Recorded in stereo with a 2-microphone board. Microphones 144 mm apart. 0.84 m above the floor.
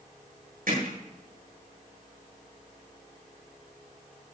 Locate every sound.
0.7 s hammering: 75° right (ahead or behind), 7.5 m